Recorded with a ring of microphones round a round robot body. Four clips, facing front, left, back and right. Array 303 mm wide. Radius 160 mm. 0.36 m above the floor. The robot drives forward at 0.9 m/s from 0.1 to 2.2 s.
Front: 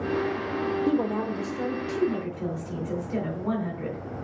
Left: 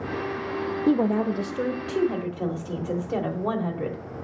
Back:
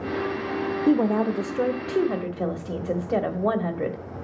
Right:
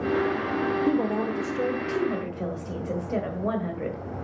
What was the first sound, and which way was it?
A woman speaking, 130° left.